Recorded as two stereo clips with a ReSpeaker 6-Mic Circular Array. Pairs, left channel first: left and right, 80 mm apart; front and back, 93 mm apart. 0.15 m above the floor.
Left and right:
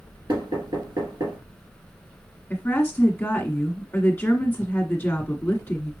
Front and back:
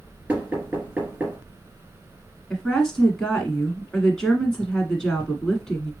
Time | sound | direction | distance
0.3 | knocking | 105° right | 2.5 m
2.5 | a woman speaking | 75° left | 1.3 m